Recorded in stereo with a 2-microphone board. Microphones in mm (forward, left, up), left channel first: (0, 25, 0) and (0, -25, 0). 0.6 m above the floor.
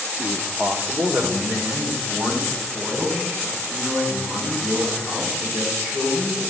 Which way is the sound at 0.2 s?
25° right (ahead or behind).